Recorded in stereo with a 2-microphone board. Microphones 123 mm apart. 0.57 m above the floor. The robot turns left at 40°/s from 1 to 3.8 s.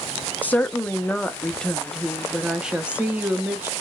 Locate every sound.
0.4 s a woman speaking: 15° left (ahead or behind), 0.6 m; by 3.7 s 15° right (ahead or behind), 0.6 m